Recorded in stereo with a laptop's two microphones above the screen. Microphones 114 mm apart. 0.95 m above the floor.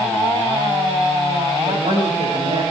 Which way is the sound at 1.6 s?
65° right (ahead or behind).